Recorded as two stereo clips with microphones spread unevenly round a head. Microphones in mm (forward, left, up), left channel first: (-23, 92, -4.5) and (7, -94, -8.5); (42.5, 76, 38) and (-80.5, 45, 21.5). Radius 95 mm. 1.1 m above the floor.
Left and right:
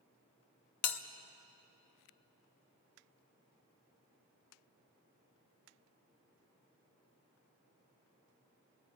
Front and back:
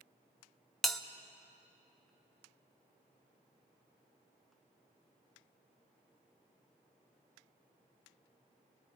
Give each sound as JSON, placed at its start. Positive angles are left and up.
{"t": 0.8, "sound": "a bell", "azimuth_deg": 100, "distance_m": 1.0}